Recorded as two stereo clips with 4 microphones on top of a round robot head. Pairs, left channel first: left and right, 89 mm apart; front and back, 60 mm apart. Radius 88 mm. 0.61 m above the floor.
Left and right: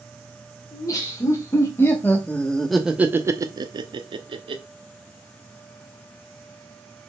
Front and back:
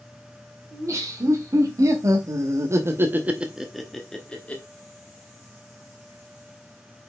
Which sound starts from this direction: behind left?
Laughter, at 0.7 s.